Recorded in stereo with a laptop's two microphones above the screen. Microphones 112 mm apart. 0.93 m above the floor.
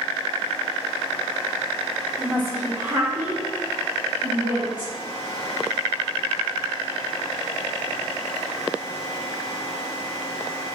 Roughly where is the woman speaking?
Centre.